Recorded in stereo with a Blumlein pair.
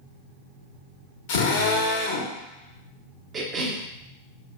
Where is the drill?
50° left, 1.4 m.